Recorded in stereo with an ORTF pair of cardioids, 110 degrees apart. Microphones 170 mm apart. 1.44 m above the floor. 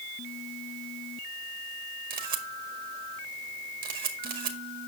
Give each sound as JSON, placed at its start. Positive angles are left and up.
{"t": 2.1, "sound": "a camera shutter", "azimuth_deg": -65, "distance_m": 1.8}